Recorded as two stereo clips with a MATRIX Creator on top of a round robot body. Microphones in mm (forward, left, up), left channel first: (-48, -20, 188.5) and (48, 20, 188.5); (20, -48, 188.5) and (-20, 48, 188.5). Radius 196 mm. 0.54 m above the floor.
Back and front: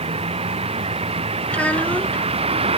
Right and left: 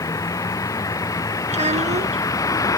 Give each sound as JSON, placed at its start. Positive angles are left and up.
{"t": 0.0, "sound": "a vehicle", "azimuth_deg": -10}
{"t": 1.5, "sound": "a child speaking", "azimuth_deg": 125}